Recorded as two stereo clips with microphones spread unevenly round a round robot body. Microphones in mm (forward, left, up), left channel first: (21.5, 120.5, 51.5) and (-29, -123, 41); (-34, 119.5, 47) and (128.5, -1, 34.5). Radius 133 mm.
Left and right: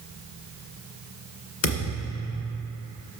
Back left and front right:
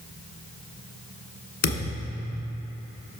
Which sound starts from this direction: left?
A thud, at 1.6 s.